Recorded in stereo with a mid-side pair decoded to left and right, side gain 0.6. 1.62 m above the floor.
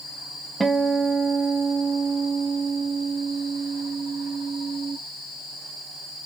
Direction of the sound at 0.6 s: 20° right.